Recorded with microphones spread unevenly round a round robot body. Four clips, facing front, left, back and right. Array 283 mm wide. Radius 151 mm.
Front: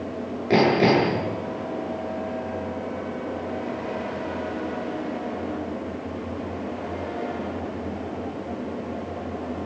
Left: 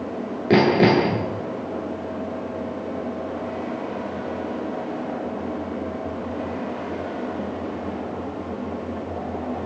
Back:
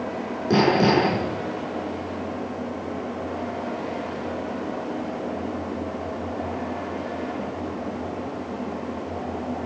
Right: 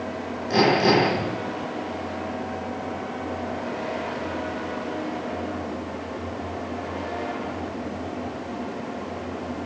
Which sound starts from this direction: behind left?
Hammering, at 0.5 s.